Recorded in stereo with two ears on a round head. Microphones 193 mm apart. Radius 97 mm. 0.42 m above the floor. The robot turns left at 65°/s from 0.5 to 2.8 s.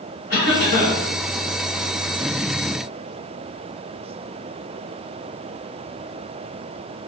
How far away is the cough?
About 1.8 m.